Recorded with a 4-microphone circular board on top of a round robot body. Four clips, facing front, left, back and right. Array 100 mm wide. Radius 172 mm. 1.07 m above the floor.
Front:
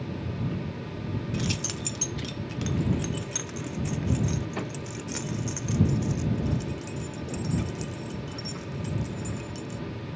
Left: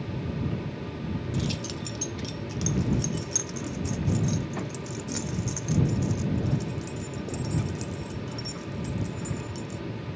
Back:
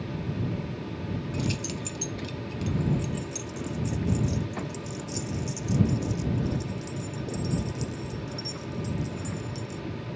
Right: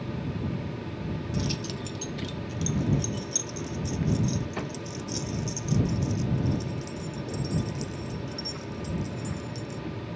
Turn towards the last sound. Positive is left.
turn(degrees=40)